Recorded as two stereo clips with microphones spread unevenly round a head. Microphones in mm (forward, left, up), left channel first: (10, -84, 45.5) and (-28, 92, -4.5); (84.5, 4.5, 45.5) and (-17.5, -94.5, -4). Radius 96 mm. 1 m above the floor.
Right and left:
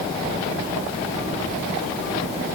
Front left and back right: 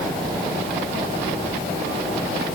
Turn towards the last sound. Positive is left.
No sound to turn to.